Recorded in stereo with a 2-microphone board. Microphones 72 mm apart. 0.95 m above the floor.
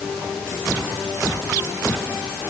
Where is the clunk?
I don't hear a clunk.